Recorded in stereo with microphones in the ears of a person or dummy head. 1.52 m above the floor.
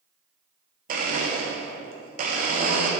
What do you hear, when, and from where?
0.9 s a blender: 45° right (ahead or behind), 0.8 m